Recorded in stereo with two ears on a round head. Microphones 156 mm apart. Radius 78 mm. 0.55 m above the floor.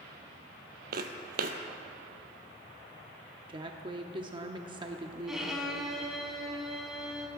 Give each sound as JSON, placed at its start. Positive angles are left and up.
{"t": 0.9, "sound": "footsteps", "side_deg": -55, "distance_m": 1.1}
{"t": 3.5, "sound": "a woman speaking", "side_deg": -25, "distance_m": 0.7}
{"t": 5.3, "sound": "a violin", "side_deg": 0, "distance_m": 2.0}